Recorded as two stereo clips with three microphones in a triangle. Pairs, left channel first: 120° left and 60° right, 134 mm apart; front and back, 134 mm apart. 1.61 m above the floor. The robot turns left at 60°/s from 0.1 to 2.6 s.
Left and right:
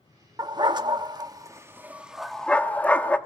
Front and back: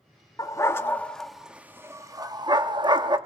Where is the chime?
I don't hear a chime.